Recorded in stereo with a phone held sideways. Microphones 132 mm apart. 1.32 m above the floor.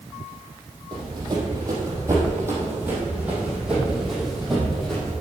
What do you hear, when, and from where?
0.9 s running footsteps: 35° right (ahead or behind), 3 m; by 5.1 s 5° left (ahead or behind), 3 m